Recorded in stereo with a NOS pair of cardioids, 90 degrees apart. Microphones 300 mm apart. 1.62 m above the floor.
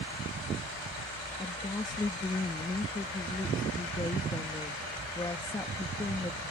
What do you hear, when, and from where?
1.4 s a woman speaking: 15° left